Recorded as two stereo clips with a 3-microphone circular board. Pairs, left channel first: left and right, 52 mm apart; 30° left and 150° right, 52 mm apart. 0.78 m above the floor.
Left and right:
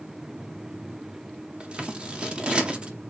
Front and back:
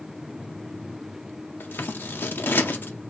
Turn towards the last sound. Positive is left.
turn(degrees=-25)